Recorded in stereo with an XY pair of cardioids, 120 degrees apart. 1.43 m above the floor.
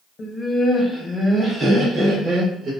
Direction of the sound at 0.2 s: 35° left.